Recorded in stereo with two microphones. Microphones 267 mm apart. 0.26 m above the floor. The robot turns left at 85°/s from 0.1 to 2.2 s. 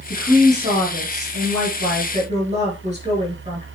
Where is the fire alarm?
No fire alarm in this recording.